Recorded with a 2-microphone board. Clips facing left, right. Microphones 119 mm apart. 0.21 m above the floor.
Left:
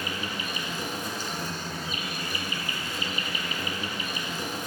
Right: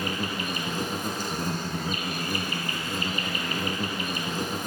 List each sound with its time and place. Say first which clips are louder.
0.0 s an insect: right 3 dB; 45° right (ahead or behind), 0.7 m